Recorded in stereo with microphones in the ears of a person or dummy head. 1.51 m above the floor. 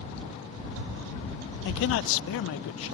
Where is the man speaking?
65° left (ahead or behind); by 2.9 s 75° left (ahead or behind).